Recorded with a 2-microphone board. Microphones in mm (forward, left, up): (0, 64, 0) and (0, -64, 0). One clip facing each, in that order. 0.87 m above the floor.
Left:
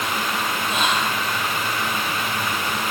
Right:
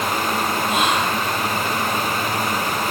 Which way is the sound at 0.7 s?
60° right (ahead or behind).